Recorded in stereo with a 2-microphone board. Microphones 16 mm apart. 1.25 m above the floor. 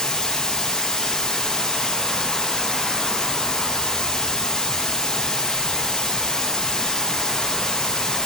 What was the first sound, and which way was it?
Running water, 50° left (ahead or behind).